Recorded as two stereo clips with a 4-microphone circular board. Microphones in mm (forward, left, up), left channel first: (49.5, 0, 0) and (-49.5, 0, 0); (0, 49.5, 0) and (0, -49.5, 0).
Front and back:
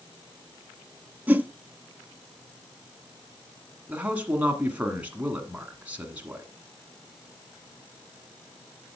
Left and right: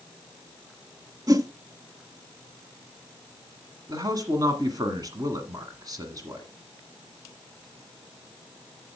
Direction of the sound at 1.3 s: 115° right.